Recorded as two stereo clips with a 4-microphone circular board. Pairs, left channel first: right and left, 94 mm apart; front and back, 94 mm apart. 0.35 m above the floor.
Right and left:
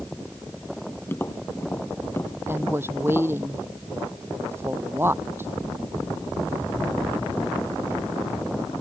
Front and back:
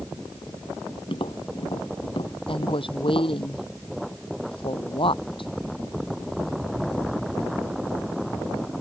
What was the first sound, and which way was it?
Tapping, 25° right.